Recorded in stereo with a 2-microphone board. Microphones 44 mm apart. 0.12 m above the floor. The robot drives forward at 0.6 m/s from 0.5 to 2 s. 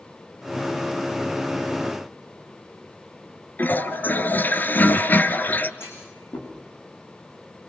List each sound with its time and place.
3.6 s a toilet flushing: 50° left (ahead or behind), 1.3 m
5.8 s a clunk: 80° left, 8.5 m